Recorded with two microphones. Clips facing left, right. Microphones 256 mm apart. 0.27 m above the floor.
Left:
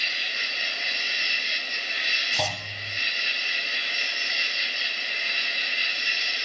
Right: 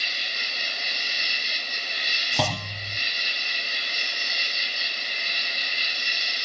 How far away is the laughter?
No laughter in this recording.